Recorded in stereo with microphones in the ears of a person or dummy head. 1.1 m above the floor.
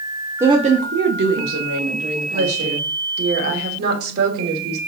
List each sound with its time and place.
0.4 s a woman speaking: 10° right (ahead or behind), 0.7 m; by 2.9 s 80° right, 3.5 m
2.3 s a woman speaking: 60° right (ahead or behind), 3 m